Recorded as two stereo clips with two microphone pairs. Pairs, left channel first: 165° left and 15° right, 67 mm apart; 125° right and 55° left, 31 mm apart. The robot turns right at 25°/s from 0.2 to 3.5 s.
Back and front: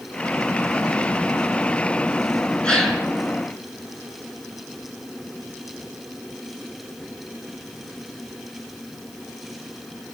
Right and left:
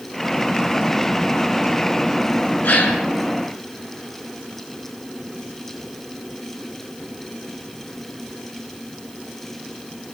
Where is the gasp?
115° right, 6.5 m; by 3.0 s 105° right, 6.5 m.